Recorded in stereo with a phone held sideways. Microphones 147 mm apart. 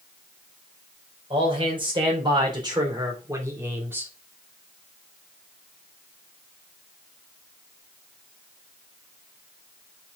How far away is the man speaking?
About 4 m.